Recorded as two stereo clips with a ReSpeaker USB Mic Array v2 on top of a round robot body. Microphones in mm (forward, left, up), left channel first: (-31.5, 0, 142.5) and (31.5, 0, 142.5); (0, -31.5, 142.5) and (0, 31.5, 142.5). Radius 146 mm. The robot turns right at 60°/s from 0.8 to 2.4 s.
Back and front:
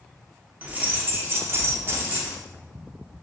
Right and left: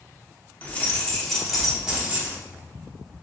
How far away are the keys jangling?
About 1.0 m.